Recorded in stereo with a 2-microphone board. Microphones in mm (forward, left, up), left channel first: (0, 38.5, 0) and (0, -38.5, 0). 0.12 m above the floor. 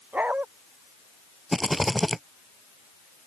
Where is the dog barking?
20° right (ahead or behind).